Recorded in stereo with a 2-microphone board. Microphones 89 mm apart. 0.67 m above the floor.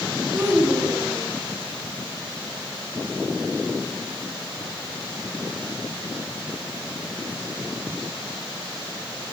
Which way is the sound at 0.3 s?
20° right (ahead or behind).